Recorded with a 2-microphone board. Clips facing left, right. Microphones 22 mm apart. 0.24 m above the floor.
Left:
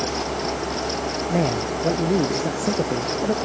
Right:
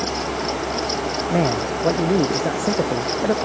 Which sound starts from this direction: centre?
A man speaking, at 1.3 s.